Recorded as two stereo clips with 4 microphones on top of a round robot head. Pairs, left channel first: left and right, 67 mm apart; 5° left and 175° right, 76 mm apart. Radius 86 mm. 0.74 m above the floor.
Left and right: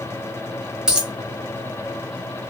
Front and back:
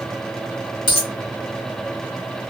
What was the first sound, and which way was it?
A dropped coin, 10° right.